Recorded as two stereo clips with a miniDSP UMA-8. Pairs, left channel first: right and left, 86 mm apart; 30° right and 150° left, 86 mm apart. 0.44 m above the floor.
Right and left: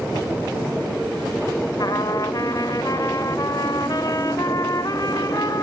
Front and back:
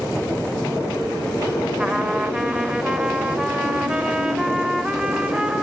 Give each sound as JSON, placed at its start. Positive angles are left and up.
{"t": 1.8, "sound": "a trumpet", "azimuth_deg": -130, "distance_m": 0.7}